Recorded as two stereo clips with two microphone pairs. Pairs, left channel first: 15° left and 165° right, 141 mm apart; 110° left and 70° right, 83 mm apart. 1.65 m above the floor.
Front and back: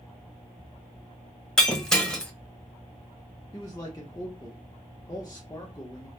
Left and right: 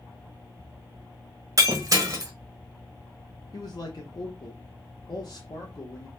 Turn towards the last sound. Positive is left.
turn(degrees=80)